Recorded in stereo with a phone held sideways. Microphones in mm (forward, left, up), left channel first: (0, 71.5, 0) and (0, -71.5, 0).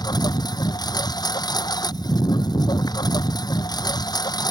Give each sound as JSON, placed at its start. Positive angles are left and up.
{"t": 0.0, "sound": "a lawn mower", "side_deg": 30}